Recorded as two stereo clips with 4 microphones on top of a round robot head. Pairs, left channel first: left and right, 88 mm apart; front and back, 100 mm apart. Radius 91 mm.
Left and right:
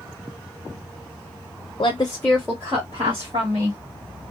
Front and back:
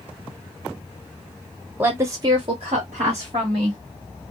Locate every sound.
1.8 s a woman speaking: 115° left, 0.7 m; by 3.8 s 125° right, 1.3 m